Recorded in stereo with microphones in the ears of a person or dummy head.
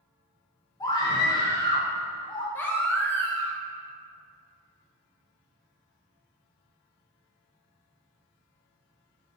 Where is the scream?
20° left (ahead or behind), 1.3 m.